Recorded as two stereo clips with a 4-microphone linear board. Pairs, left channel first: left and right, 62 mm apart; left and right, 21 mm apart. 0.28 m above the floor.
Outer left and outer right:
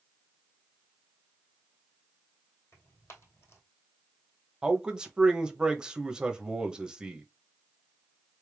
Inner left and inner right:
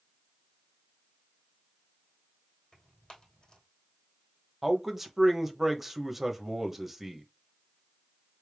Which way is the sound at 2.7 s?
45° left (ahead or behind).